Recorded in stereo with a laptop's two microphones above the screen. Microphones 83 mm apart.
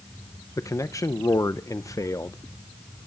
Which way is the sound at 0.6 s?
40° left (ahead or behind).